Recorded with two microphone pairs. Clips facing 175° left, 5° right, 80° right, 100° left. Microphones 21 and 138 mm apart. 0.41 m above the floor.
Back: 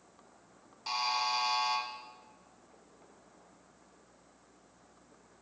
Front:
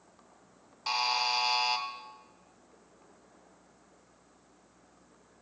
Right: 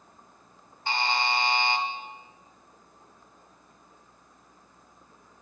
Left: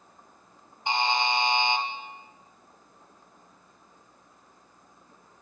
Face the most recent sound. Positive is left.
turn(degrees=35)